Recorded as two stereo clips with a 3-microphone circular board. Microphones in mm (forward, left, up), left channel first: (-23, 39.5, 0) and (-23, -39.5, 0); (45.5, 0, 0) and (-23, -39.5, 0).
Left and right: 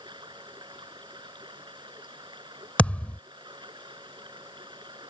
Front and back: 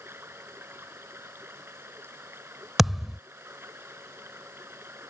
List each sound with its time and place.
0.0 s running water: 90° right
2.8 s a thud: 125° left